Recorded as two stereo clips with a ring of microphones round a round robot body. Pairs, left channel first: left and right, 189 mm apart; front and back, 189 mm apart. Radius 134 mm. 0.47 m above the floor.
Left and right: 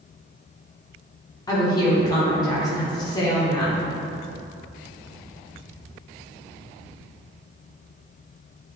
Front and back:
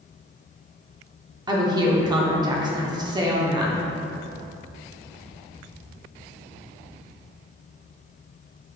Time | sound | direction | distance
1.5 | a woman speaking | 140° left | 0.7 m